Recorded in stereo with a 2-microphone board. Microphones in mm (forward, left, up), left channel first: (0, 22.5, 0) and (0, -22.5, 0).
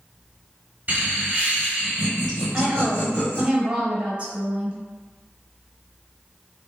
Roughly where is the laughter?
Right.